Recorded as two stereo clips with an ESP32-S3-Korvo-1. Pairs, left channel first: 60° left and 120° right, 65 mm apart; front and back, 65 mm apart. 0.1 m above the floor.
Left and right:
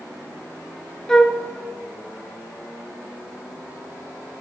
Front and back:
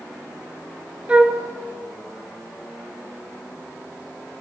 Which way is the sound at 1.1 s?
125° left.